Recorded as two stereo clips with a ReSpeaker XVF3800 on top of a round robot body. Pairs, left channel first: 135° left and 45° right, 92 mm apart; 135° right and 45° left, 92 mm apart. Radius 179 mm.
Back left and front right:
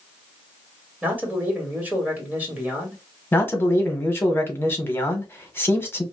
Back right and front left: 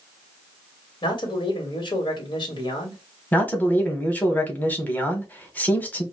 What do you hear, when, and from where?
1.0 s a man speaking: 115° right, 1.7 m
3.3 s a man speaking: 175° left, 1.3 m